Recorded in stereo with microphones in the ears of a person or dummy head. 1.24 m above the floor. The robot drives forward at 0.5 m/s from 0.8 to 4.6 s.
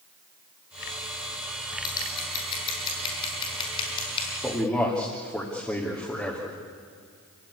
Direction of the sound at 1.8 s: 30° left (ahead or behind).